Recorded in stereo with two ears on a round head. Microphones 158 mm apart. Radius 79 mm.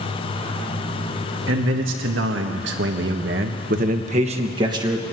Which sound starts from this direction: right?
A man speaking, at 1.5 s.